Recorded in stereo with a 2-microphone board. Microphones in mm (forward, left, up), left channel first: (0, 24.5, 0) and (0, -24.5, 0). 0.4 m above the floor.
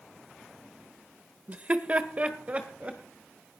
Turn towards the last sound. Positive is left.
turn(degrees=-25)  # may be behind; listen again after turning